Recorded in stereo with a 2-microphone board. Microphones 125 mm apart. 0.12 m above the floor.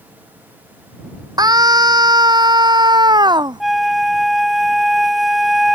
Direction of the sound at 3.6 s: Centre (ahead or behind).